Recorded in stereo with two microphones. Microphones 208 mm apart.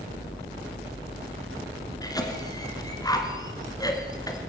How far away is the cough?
About 1.7 m.